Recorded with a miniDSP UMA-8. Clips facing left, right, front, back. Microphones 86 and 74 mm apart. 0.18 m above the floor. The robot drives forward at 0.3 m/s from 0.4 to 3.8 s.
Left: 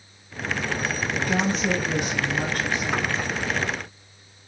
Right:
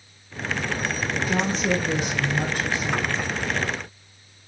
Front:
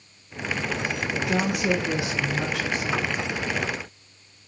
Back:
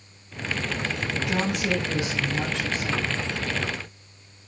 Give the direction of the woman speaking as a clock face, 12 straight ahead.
10 o'clock.